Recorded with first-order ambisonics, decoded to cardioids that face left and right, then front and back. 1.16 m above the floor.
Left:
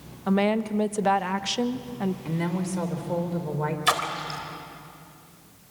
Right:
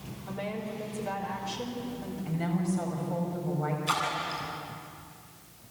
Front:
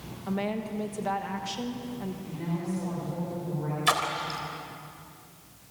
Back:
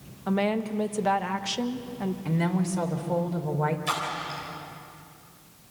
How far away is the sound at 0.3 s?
About 1.2 m.